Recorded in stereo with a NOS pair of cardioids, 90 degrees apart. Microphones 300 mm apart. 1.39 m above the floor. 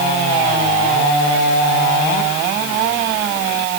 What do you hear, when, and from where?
Only background noise.